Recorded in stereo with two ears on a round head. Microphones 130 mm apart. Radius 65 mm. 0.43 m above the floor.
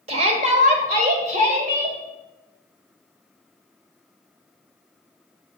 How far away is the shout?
About 1.0 m.